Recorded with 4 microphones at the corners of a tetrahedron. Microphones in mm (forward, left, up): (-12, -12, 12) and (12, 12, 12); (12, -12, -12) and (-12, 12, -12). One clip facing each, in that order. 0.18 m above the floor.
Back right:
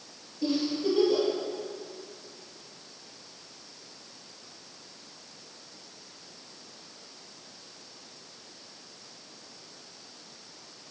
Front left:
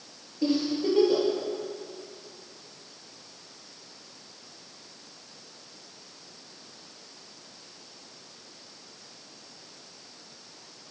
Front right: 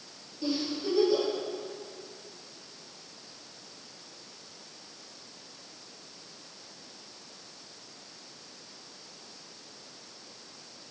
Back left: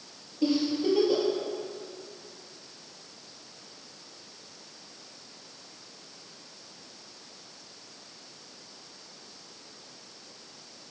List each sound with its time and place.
0.4 s a giggle: 85° left, 4 m